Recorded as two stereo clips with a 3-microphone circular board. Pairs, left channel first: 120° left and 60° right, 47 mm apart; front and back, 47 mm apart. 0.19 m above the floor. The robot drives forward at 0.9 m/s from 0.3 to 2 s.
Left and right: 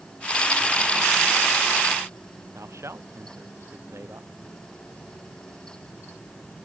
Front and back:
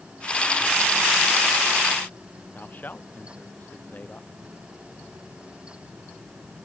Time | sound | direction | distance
2.5 | a man speaking | 50° right | ?